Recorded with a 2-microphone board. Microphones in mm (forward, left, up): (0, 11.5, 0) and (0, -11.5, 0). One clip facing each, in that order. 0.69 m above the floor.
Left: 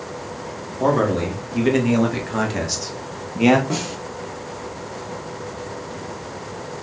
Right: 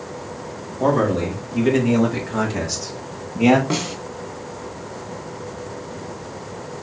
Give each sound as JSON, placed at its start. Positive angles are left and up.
{"t": 0.8, "sound": "a man speaking", "side_deg": 10, "distance_m": 2.0}
{"t": 3.7, "sound": "a snare drum", "side_deg": -45, "distance_m": 1.6}